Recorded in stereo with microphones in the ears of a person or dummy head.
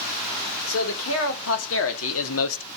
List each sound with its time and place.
0.7 s a man speaking: 90° left, 4 m; by 2.7 s 80° left, 1.3 m